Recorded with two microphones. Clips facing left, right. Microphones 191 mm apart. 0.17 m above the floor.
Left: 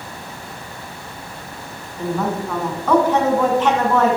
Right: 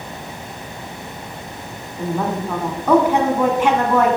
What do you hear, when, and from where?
2.0 s a woman speaking: 10° right (ahead or behind), 1.7 m